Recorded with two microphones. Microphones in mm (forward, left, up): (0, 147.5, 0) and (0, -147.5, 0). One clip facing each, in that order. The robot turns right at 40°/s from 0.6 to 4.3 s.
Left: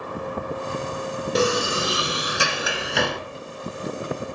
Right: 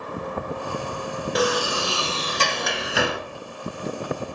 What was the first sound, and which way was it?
A sliding door, 120° left.